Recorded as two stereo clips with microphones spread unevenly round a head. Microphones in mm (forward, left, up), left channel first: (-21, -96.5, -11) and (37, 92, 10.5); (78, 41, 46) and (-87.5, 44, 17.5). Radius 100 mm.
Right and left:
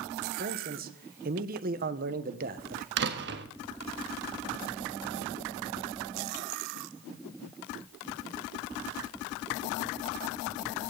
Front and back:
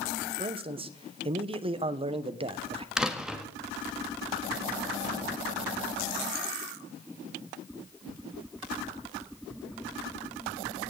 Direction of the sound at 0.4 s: 120° left.